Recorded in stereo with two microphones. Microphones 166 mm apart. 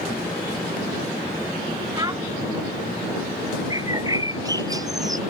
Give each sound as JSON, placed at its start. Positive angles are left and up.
{"t": 1.9, "sound": "a child speaking", "side_deg": -20}
{"t": 3.7, "sound": "a bird", "side_deg": -20}